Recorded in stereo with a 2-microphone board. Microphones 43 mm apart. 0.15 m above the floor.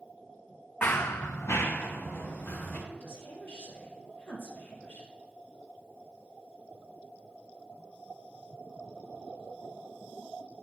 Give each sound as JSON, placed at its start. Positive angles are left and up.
{"t": 0.8, "sound": "running footsteps", "side_deg": 45, "distance_m": 0.7}
{"t": 2.9, "sound": "a woman speaking", "side_deg": 55, "distance_m": 4.0}